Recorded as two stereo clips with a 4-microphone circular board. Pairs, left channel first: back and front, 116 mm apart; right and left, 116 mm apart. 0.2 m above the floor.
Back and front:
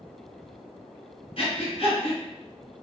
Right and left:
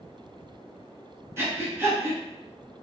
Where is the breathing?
155° left, 1.5 m.